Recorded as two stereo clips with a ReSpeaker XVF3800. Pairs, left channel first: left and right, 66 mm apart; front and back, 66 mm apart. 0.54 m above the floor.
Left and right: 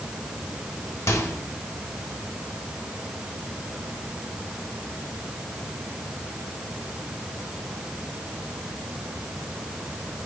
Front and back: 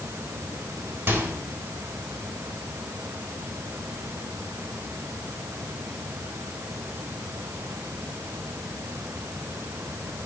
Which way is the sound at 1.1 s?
125° left.